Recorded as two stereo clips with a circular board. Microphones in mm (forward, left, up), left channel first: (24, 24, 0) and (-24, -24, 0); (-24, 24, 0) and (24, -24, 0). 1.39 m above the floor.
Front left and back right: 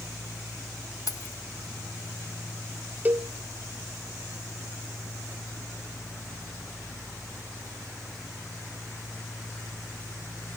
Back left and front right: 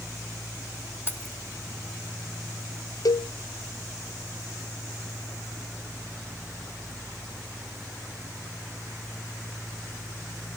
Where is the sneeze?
No sneeze in this recording.